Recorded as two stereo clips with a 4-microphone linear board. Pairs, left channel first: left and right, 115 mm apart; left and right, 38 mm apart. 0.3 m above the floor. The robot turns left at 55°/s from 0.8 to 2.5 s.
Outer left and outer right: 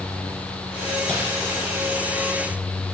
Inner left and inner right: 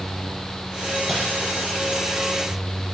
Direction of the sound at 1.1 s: 5° left (ahead or behind).